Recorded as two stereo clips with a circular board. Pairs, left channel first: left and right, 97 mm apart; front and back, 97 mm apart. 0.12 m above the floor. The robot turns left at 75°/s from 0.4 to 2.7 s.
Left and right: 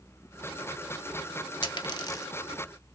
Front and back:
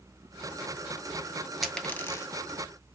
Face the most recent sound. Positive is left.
turn(degrees=10)